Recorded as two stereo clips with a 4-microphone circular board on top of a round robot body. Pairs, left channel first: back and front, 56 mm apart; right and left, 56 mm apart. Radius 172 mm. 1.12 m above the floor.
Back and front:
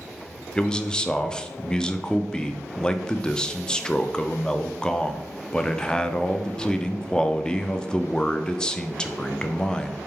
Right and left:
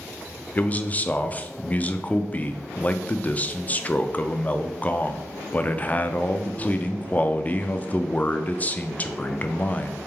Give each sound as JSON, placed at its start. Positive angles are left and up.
{"t": 0.6, "sound": "a man speaking", "azimuth_deg": -115, "distance_m": 0.5}